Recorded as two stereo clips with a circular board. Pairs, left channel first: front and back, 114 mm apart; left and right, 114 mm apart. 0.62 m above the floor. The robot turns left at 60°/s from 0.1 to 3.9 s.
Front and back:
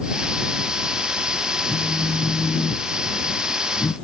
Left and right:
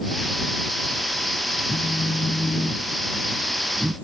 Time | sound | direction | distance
1.7 | a phone buzzing | 105° left | ?